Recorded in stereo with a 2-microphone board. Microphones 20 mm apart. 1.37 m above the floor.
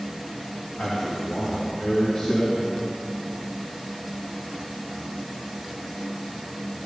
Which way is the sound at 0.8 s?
60° left (ahead or behind).